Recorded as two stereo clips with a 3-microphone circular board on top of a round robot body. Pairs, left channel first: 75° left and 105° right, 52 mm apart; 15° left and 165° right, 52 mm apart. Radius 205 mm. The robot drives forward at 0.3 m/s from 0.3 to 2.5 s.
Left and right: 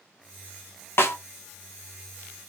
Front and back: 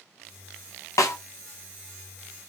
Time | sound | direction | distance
1.0 | a snare drum | 30° left | 0.6 m